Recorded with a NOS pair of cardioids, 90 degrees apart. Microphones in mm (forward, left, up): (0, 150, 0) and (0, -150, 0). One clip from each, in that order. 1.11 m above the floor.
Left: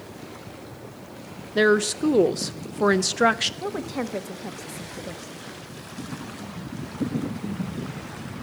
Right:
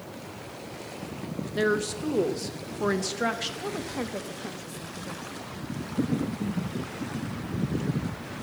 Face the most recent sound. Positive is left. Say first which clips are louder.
# left 3 dB
turn(degrees=25)